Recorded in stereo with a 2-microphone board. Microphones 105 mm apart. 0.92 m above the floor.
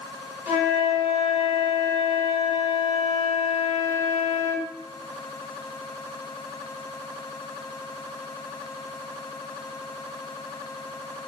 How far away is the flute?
About 1.1 m.